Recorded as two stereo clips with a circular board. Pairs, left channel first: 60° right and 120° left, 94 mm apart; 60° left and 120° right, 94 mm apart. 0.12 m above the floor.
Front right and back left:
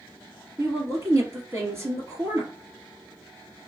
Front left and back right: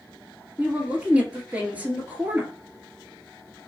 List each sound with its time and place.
0.6 s a woman speaking: 170° left, 1.7 m